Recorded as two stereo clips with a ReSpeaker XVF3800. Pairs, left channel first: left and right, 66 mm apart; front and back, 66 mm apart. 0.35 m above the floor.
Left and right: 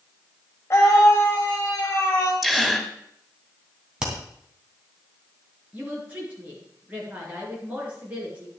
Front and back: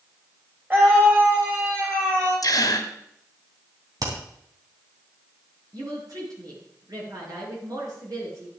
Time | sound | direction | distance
0.7 | a scream | 125° left | 2.0 m
2.4 | a gasp | straight ahead | 1.9 m
4.0 | hammering | 165° right | 3 m
5.7 | a woman speaking | 155° right | 5 m